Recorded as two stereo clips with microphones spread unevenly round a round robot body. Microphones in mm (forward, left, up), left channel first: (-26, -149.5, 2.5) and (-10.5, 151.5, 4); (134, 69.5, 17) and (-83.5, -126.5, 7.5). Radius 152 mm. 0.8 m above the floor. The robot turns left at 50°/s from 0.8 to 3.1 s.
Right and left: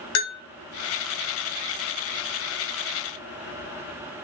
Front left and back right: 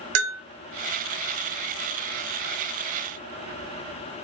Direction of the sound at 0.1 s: 125° right.